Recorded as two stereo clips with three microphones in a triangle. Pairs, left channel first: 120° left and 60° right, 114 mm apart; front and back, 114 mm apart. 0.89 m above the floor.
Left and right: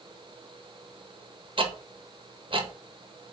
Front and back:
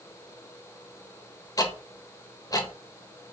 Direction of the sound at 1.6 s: 45° right.